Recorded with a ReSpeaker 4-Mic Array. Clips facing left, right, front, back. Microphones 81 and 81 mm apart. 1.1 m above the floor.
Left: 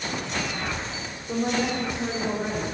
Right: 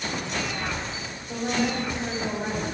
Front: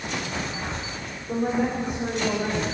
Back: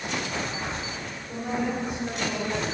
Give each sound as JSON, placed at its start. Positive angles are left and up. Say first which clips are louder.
{"t": 1.3, "sound": "a woman speaking", "louder": "left 1 dB, front 5 dB", "azimuth_deg": 45, "distance_m": 3.0}